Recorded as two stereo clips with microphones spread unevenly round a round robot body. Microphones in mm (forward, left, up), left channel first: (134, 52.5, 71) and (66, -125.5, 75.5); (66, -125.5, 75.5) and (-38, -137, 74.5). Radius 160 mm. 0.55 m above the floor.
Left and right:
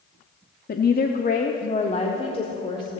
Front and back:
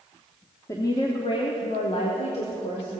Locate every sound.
0.7 s a woman speaking: 65° left, 0.8 m; by 3.0 s straight ahead, 1.9 m